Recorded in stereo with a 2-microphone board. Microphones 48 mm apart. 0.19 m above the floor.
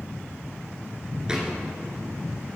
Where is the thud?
15° right (ahead or behind), 1.3 m.